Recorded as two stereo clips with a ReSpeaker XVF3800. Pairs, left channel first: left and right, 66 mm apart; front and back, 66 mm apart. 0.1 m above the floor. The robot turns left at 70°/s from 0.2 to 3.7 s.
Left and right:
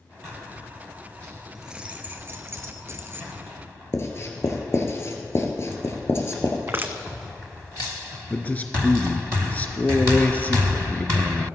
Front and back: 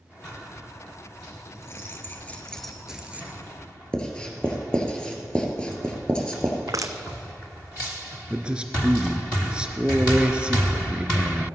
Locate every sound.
1.6 s keys jangling: 5° right, 1.3 m; by 3.4 s 135° right, 1.3 m
3.9 s writing: 70° left, 2 m
6.7 s crushing: 145° right, 1.0 m
8.3 s a man speaking: 120° left, 1.2 m